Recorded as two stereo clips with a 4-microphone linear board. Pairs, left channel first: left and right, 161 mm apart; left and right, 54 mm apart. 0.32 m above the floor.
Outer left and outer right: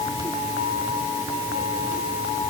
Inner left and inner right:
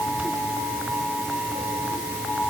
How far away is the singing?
I don't hear singing.